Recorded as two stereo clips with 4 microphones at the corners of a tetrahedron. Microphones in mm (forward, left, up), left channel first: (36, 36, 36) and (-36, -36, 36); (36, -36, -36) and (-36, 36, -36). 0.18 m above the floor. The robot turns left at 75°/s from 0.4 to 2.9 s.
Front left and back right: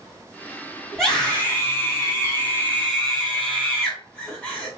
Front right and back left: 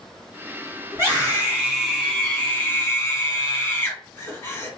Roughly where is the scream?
Behind left.